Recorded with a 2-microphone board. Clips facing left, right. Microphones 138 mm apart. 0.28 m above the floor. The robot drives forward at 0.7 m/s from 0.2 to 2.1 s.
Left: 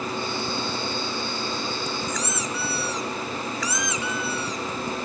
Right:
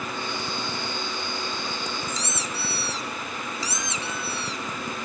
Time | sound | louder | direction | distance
2.1 | a squeak | left 3 dB | 30° right (ahead or behind) | 1.2 m